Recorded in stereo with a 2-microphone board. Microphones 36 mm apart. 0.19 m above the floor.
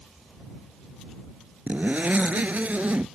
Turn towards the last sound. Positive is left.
turn(degrees=-50)  # may be behind; listen again after turning